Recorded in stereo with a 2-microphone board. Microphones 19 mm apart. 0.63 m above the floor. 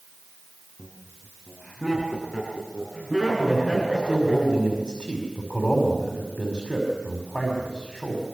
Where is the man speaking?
50° left (ahead or behind), 5.5 m.